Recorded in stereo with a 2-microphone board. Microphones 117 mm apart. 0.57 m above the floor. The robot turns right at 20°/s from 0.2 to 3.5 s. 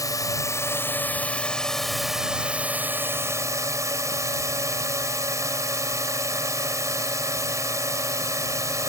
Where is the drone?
145° left; by 8.9 s 150° right.